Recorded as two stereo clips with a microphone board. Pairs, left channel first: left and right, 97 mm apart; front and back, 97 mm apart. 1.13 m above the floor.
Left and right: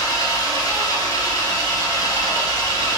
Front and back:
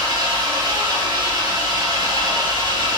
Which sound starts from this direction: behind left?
An engine running, at 0.0 s.